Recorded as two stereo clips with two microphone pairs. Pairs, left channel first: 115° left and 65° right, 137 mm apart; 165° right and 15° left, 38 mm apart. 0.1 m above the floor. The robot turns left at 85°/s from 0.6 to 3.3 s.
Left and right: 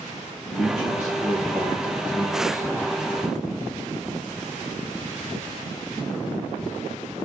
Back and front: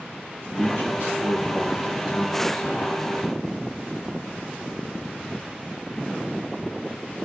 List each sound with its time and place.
0.5 s a man speaking: 75° left, 10 m; by 2.7 s 100° right, 10 m